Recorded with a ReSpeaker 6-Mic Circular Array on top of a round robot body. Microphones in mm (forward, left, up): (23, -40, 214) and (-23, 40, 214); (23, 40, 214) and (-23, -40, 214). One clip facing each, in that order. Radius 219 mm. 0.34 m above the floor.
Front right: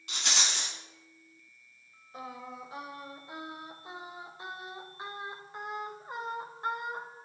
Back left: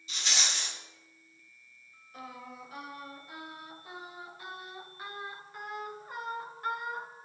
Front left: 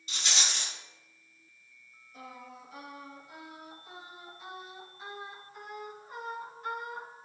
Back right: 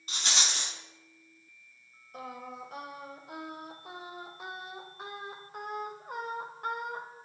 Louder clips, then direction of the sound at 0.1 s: Front right 2 dB, back right 1 dB; 75° right.